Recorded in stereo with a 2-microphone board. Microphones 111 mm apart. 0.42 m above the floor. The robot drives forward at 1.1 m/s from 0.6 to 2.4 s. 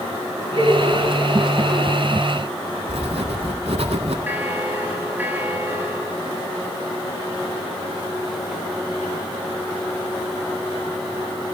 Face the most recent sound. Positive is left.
turn(degrees=-20)  # may be behind; listen again after turning